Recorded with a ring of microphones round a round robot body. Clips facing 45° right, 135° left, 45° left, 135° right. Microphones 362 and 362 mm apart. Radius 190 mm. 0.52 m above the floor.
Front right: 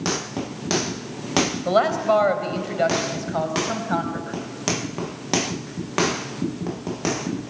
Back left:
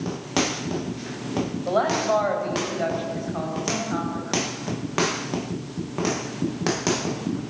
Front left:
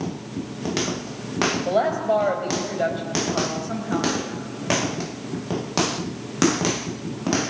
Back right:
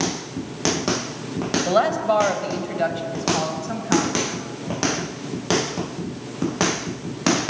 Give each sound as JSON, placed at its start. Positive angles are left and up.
{"t": 1.6, "sound": "a woman speaking", "azimuth_deg": -80, "distance_m": 3.5}